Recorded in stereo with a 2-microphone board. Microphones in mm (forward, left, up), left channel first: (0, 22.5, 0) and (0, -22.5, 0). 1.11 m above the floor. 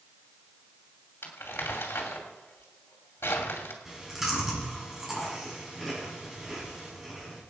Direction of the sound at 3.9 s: 5° right (ahead or behind).